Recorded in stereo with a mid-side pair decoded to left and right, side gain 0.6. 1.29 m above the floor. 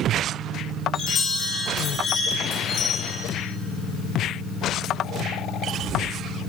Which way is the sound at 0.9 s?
40° left.